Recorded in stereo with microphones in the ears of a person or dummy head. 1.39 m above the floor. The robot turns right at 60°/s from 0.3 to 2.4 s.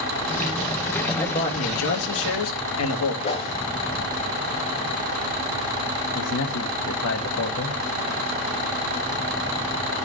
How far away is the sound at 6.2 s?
About 1.4 m.